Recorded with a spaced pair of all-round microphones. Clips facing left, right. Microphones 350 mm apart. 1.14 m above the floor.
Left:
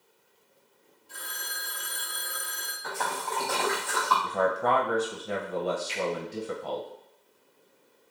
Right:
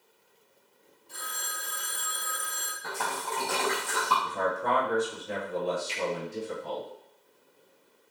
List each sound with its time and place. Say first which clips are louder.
1.1 s a phone ringing: right 1 dB; 25° left (ahead or behind), 1.8 m
2.8 s a splash: left 1 dB; 45° right (ahead or behind), 1.9 m
4.2 s a man speaking: left 5 dB; 70° left (ahead or behind), 0.7 m
5.9 s a finger snap: left 5 dB; 15° right (ahead or behind), 1.8 m